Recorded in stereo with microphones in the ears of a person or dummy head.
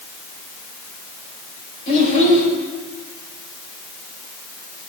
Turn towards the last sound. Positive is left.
turn(degrees=35)  # may be behind; listen again after turning